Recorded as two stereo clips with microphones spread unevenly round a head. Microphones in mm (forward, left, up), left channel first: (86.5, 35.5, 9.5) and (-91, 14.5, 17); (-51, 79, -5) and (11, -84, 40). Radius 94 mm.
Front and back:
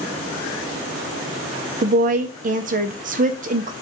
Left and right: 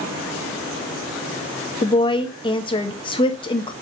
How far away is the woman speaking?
About 0.6 m.